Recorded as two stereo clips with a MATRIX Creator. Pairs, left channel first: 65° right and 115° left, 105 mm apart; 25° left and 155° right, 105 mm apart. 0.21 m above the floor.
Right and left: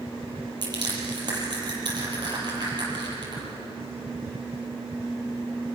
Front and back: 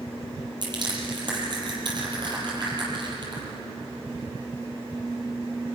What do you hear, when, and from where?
0.6 s crushing: 160° left, 7 m